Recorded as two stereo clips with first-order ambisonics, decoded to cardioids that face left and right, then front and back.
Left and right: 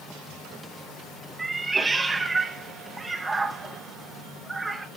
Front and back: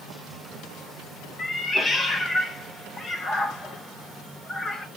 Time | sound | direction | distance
1.4 | a cat meowing | 25° right | 0.7 m